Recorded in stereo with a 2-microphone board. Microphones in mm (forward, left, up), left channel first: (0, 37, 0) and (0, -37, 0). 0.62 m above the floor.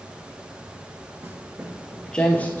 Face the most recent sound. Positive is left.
turn(degrees=25)  # may be behind; listen again after turning